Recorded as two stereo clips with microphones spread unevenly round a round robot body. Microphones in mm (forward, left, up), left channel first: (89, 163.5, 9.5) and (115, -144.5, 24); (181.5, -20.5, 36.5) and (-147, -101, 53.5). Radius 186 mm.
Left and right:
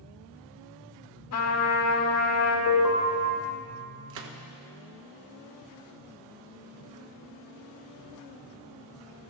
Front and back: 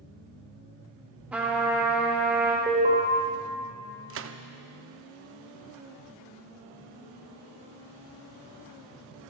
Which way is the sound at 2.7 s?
125° left.